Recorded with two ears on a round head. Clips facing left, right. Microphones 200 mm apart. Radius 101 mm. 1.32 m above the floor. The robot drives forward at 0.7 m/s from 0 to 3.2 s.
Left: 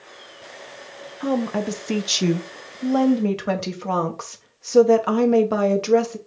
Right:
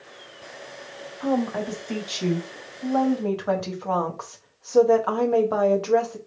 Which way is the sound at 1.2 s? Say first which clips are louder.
Left 2 dB; 35° left (ahead or behind).